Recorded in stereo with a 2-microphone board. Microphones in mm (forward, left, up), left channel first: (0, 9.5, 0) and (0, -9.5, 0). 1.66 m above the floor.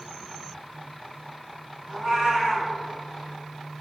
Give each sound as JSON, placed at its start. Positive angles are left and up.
{"t": 1.9, "sound": "a cat meowing", "side_deg": -25, "distance_m": 1.8}